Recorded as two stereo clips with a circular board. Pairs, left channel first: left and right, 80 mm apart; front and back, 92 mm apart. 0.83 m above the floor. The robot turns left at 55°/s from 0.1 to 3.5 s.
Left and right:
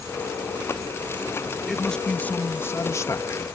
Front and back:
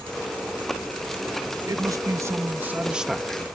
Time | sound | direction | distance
1.7 | a man speaking | 175° left | ?